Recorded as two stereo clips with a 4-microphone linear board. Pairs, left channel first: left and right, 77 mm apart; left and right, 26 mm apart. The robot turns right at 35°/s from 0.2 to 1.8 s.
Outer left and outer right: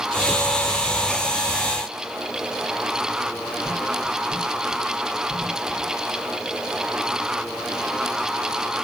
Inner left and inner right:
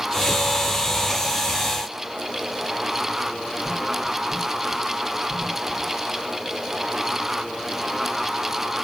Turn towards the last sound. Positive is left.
No sound to turn to.